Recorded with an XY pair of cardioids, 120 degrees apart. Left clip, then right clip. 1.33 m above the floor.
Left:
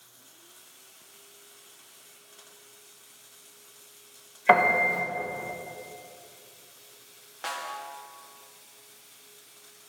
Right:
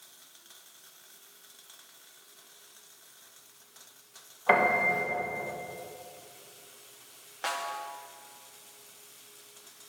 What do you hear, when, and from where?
4.5 s a piano: 25° left, 1.1 m
7.4 s a snare drum: 15° right, 0.6 m